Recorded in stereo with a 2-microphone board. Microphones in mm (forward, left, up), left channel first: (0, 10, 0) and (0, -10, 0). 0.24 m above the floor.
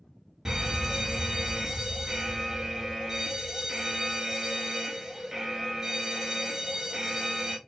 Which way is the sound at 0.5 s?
20° right (ahead or behind).